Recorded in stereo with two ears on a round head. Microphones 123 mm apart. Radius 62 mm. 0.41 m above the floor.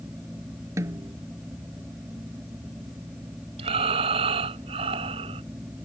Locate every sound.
0.8 s a snare drum: 25° right (ahead or behind)
3.6 s breathing: 45° right (ahead or behind)